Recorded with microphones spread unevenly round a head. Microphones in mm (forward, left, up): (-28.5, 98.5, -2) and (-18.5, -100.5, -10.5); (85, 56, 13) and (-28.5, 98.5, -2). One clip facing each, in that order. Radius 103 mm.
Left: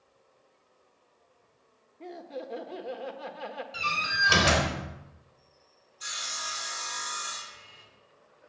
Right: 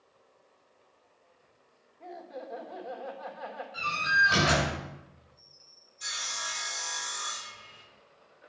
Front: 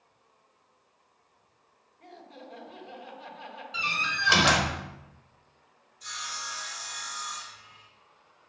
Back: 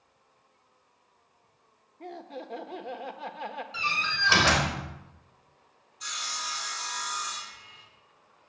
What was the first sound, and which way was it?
Laughter, 140° left.